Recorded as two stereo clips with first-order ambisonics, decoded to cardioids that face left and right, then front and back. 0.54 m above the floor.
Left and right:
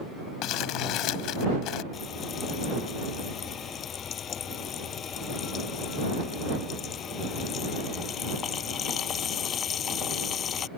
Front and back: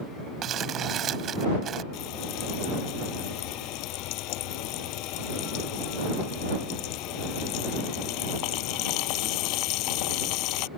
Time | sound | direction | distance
0.4 | crumpling | 125° left | ?
1.9 | frying | 30° left | ?